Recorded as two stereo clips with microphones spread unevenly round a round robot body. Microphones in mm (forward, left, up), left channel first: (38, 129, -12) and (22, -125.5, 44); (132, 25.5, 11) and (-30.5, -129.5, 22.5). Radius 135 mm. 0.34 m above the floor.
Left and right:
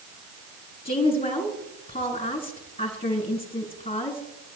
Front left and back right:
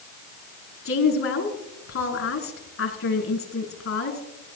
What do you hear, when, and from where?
0.8 s a woman speaking: 20° left, 4.5 m